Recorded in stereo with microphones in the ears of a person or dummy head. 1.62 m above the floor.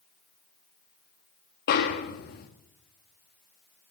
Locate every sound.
1.7 s a snare drum: 50° left (ahead or behind), 1.8 m